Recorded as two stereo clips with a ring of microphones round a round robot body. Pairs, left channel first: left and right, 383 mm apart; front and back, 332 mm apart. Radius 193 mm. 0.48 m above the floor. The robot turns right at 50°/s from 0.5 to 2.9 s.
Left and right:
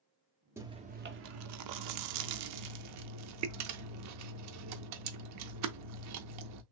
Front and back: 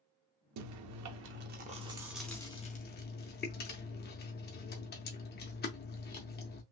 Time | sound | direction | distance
0.6 | chewing | 170° right | 0.5 m